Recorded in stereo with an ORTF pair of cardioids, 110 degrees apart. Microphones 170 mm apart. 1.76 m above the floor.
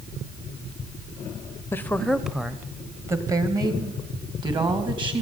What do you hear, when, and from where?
1.7 s a woman speaking: 15° left, 0.9 m; by 5.2 s 30° right, 3 m